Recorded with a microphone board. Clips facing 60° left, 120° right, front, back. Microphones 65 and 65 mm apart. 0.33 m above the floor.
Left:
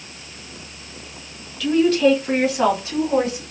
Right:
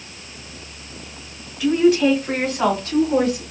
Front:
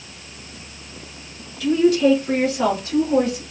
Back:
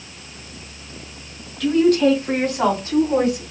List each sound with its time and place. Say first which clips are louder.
1.6 s a woman speaking: right 1 dB, back 1 dB; 170° left, 1.8 m; by 3.4 s 120° left, 2 m